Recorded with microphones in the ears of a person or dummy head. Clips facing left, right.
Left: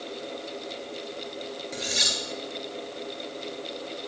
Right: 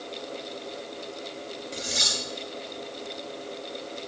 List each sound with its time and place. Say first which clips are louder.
1.7 s cutlery clinking: even; centre (ahead or behind), 2.5 m